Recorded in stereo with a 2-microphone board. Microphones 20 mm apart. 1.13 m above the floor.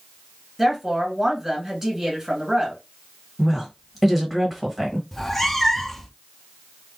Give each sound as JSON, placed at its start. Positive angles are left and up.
{"t": 0.6, "sound": "a woman speaking", "side_deg": -15, "distance_m": 2.0}
{"t": 3.4, "sound": "a woman speaking", "side_deg": -5, "distance_m": 1.7}
{"t": 5.1, "sound": "a cat meowing", "side_deg": 10, "distance_m": 0.6}